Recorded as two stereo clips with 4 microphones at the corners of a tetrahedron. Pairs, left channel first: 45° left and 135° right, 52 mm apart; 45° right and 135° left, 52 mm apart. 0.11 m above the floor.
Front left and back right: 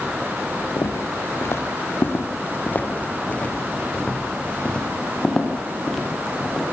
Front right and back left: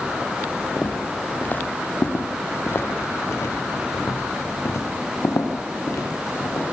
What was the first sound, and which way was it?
Footsteps, 20° left.